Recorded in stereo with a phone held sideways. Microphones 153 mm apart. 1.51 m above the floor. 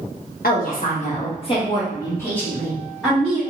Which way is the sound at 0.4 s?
75° left (ahead or behind).